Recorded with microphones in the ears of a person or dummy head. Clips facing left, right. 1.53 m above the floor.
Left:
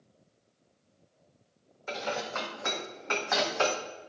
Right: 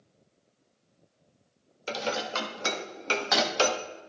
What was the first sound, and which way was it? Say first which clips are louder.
Dishes clattering: right 3 dB; 40° right (ahead or behind).